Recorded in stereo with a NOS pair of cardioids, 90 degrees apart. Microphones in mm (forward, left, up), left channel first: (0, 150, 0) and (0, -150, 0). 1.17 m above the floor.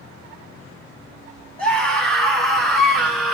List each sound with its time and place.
1.6 s a scream: 5° left, 6.5 m